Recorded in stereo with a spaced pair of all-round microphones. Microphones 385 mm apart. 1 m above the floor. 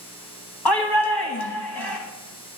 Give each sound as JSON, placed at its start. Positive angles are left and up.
{"t": 0.7, "sound": "a shout", "side_deg": 70, "distance_m": 1.3}